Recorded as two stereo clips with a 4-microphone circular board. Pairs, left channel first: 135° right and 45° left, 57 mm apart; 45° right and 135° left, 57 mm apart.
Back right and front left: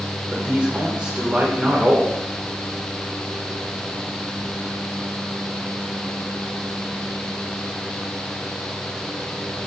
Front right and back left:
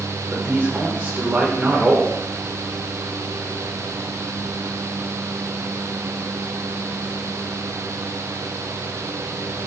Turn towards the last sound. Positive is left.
turn(degrees=100)